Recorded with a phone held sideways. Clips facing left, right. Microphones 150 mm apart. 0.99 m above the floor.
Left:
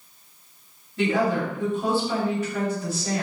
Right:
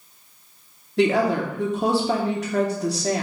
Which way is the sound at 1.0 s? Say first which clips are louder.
Right 3 dB; 75° right (ahead or behind).